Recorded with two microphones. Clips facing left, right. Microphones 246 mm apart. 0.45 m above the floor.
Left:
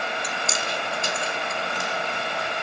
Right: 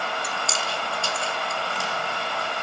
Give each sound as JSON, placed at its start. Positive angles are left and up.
{"t": 0.2, "sound": "chewing", "side_deg": 20, "distance_m": 2.5}